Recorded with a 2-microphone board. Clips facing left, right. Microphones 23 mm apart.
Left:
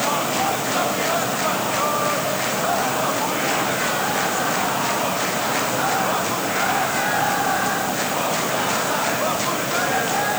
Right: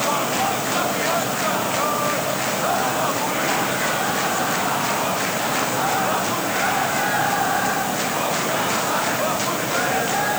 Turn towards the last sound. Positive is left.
No sound to turn to.